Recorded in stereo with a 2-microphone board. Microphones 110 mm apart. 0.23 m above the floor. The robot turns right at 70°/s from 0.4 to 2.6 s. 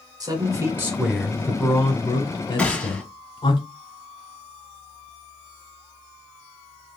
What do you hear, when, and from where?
0.2 s a man speaking: 55° right, 1.3 m; by 3.6 s 100° left, 1.3 m
2.6 s a gunshot: 10° left (ahead or behind), 1.2 m